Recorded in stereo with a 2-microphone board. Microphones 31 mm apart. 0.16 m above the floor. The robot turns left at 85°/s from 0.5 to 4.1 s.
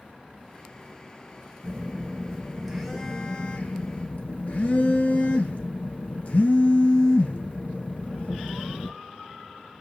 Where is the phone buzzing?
80° right, 1.1 m; by 8.9 s 70° left, 1.1 m.